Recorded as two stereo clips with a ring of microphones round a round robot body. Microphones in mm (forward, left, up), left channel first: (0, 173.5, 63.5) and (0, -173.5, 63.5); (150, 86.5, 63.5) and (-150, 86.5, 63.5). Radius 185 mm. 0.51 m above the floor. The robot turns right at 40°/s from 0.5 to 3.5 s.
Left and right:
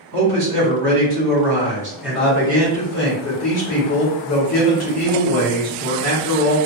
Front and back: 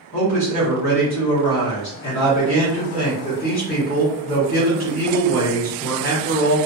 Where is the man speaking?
65° right, 1.6 m; by 6.6 s 55° left, 1.6 m.